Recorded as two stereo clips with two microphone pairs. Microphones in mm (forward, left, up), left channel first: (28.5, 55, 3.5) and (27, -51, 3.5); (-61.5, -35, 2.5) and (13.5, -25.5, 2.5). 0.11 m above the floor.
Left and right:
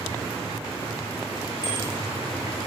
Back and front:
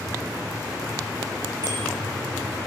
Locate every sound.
1.6 s a bicycle bell: 40° left, 7 m